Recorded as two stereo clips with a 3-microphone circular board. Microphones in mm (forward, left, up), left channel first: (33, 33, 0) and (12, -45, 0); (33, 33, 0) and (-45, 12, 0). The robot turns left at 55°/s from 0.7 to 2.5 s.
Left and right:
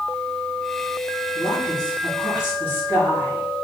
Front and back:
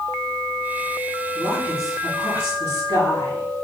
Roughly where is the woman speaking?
Left.